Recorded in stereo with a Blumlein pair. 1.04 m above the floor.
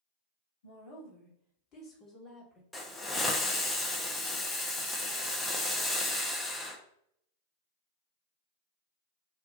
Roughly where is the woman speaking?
Ahead left.